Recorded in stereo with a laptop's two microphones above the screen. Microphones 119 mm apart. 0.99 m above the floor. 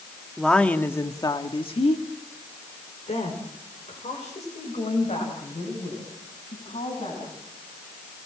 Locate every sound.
0.4 s a woman speaking: centre (ahead or behind), 1.9 m; by 7.3 s 75° left (ahead or behind), 7.5 m